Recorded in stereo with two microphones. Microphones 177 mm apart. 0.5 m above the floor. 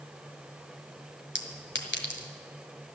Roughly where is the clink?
Left.